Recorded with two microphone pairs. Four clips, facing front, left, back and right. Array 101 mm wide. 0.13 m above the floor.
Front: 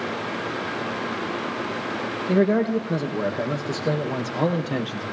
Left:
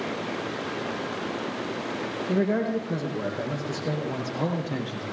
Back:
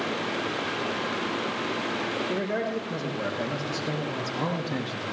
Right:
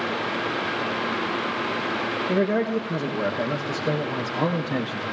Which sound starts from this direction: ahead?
A man speaking, at 2.3 s.